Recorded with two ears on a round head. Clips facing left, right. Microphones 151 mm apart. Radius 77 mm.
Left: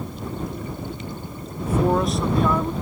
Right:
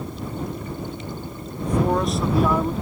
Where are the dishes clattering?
No dishes clattering in this recording.